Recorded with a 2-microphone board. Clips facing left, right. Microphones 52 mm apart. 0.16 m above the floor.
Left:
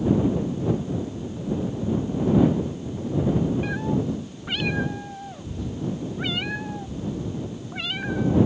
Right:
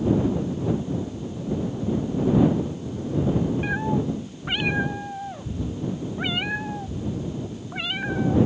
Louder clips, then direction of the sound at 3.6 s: Right 1 dB; 20° right (ahead or behind).